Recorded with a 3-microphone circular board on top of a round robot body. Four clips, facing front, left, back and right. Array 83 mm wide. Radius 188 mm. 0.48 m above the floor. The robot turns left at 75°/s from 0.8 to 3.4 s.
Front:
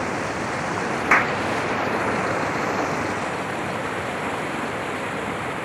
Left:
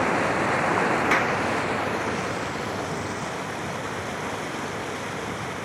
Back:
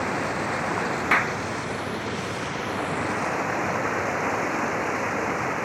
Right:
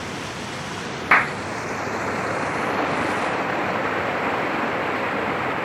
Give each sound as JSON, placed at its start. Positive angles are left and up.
{"t": 0.0, "sound": "running water", "azimuth_deg": 85, "distance_m": 0.9}
{"t": 1.1, "sound": "a clap", "azimuth_deg": -65, "distance_m": 1.2}